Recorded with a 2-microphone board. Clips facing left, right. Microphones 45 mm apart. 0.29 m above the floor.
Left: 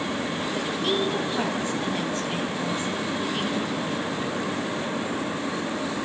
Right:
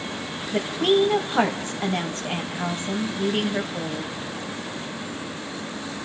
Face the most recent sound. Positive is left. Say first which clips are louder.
# right 8 dB
turn(degrees=-45)  # may be behind; listen again after turning